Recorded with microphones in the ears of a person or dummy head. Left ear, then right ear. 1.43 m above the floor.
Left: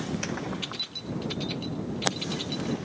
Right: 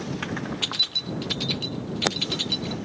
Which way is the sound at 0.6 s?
20° right (ahead or behind).